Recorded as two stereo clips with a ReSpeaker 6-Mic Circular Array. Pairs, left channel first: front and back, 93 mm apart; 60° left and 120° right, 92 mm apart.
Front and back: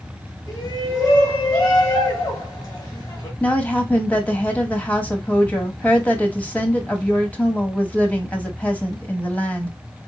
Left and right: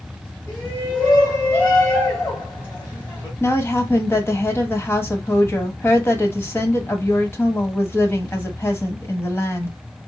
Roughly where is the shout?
Ahead.